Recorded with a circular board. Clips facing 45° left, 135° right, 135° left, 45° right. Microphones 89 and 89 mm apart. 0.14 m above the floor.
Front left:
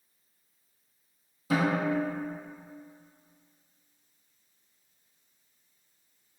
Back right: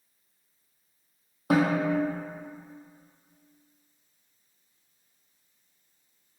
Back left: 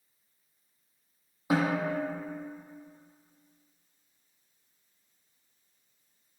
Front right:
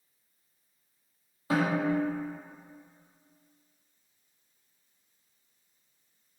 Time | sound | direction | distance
1.5 | a snare drum | 155° right | 0.9 m